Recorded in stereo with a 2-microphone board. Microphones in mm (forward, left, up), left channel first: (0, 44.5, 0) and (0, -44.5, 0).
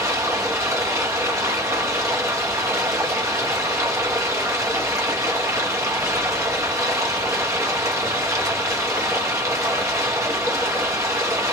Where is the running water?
35° right (ahead or behind), 0.9 m.